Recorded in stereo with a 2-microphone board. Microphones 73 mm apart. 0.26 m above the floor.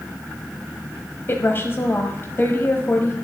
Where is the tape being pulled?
I don't hear tape being pulled.